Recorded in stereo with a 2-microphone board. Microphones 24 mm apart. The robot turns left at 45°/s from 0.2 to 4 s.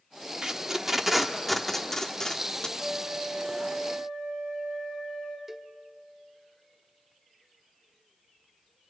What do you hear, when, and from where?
0.4 s tape being pulled: 25° right (ahead or behind), 1.2 m; by 2.7 s 35° left (ahead or behind), 1.2 m
2.8 s a flute: 160° right, 4 m; by 5.4 s 145° left, 4 m
5.5 s a cowbell: 10° right (ahead or behind), 0.6 m